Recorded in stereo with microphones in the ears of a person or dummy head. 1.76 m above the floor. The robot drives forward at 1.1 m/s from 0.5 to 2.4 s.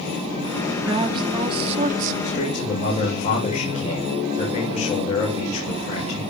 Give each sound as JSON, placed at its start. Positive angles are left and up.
{"t": 0.8, "sound": "a woman speaking", "side_deg": -20, "distance_m": 2.5}
{"t": 2.2, "sound": "a man speaking", "side_deg": 45, "distance_m": 8.0}